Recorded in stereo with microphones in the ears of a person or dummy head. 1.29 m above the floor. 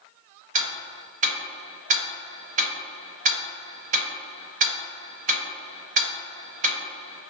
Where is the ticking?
40° right (ahead or behind), 0.6 m.